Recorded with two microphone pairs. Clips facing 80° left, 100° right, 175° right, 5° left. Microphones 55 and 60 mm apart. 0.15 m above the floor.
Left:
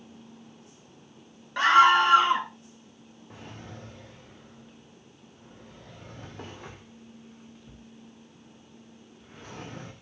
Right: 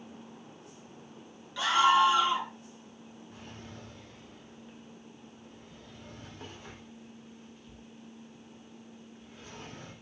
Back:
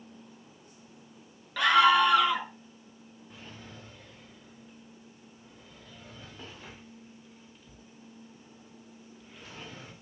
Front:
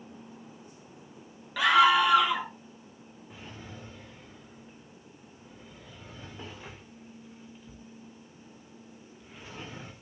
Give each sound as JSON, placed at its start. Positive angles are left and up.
{"t": 1.6, "sound": "a scream", "azimuth_deg": 90, "distance_m": 1.7}
{"t": 3.3, "sound": "a drawer", "azimuth_deg": 85, "distance_m": 5.5}